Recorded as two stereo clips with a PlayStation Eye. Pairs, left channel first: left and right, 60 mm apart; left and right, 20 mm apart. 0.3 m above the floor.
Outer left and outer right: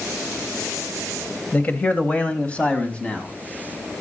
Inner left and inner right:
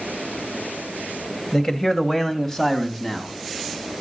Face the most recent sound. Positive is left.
turn(degrees=20)  # may be behind; listen again after turning